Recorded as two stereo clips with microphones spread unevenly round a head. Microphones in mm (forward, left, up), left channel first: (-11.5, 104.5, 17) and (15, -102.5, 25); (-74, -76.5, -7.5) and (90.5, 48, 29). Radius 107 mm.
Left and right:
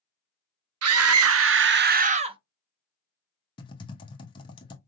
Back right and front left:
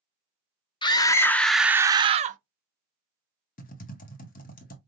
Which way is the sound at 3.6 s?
165° left.